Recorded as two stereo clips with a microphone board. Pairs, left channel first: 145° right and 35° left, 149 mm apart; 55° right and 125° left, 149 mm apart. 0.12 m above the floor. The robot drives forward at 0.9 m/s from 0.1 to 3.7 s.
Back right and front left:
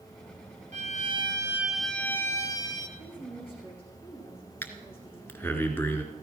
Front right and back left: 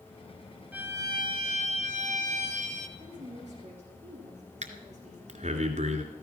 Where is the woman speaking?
160° left, 8 m; by 5.6 s 165° left, 8.5 m.